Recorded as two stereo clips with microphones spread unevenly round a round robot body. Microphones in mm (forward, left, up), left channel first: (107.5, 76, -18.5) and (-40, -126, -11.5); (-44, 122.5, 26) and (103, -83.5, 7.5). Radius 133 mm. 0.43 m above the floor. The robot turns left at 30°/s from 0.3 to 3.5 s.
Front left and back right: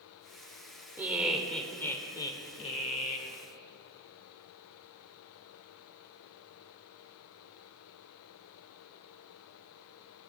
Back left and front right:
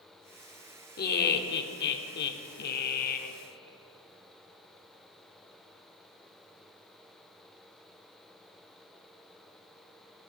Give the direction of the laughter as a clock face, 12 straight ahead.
7 o'clock.